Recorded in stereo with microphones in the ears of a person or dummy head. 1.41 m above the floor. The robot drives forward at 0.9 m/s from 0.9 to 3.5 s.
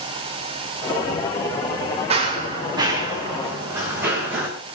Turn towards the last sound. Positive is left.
turn(degrees=-15)  # may be behind; listen again after turning